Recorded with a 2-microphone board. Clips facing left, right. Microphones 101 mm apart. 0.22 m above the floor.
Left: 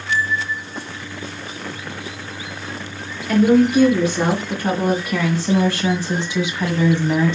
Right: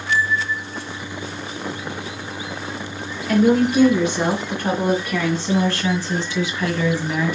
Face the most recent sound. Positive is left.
turn(degrees=25)  # may be behind; listen again after turning